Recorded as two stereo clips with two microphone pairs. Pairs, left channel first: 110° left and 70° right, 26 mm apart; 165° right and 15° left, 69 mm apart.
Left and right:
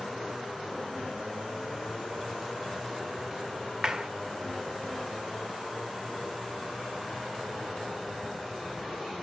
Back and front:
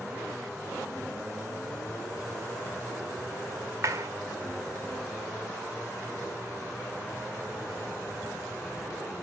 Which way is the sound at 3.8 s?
15° right.